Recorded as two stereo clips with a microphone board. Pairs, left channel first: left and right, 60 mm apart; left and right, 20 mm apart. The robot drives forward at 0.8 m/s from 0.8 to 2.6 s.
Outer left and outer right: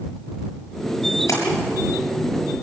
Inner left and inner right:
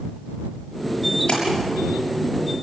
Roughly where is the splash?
Left.